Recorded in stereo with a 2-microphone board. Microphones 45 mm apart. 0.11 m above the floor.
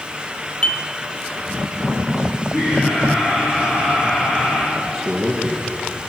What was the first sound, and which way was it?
Dishes clattering, 25° left (ahead or behind).